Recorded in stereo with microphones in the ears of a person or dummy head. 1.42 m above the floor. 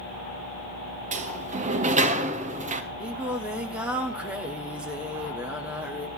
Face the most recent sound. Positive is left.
turn(degrees=-5)  # may be behind; listen again after turning